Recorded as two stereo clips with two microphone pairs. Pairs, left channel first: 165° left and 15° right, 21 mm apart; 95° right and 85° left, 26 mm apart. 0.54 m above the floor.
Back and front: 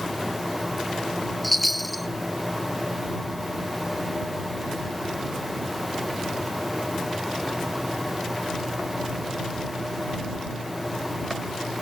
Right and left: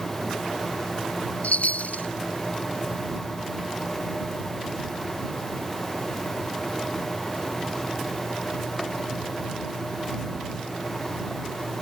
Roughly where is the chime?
Right.